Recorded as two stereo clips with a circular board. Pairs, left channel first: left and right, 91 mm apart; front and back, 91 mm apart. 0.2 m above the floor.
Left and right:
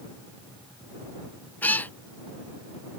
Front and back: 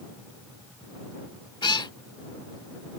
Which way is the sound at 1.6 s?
20° left.